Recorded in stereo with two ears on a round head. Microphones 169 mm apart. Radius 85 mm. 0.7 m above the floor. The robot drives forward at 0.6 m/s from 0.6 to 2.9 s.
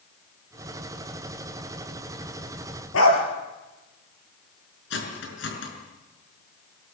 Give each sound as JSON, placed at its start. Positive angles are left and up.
{"t": 2.9, "sound": "a dog barking", "side_deg": 80, "distance_m": 4.0}
{"t": 4.9, "sound": "cutlery clinking", "side_deg": 65, "distance_m": 5.0}